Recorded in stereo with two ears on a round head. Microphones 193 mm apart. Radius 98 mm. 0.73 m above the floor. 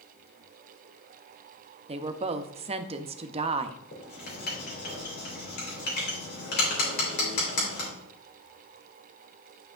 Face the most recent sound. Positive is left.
turn(degrees=45)  # may be behind; listen again after turning